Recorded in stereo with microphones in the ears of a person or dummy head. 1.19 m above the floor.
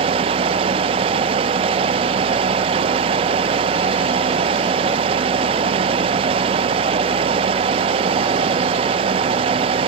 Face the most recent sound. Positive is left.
turn(degrees=-30)  # may be behind; listen again after turning